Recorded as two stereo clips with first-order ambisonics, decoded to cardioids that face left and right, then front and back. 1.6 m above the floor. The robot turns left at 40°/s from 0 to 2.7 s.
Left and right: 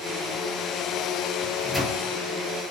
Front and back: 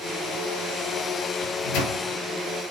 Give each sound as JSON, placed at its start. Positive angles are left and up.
{"t": 1.4, "sound": "a microwave", "azimuth_deg": 15, "distance_m": 3.0}